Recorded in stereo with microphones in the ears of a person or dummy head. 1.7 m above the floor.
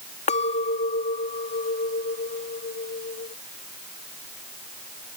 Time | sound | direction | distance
0.3 | a clink | 40° left (ahead or behind) | ?